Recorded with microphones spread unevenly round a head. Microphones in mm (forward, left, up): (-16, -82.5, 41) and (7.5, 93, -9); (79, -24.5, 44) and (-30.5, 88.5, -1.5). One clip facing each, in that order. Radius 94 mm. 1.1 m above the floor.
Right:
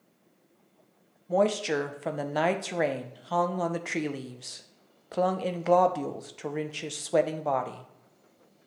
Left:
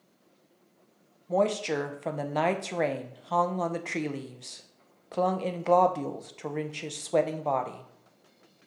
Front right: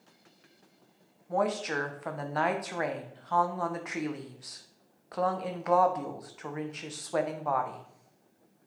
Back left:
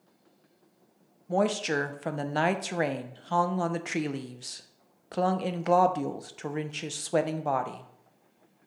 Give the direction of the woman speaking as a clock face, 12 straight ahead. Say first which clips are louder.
Right 1 dB, back left 3 dB; 7 o'clock.